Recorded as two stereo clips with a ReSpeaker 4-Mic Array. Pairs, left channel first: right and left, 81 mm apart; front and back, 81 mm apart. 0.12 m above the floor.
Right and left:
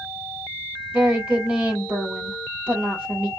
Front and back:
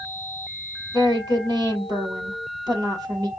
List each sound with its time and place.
0.9 s a woman speaking: 155° left, 3 m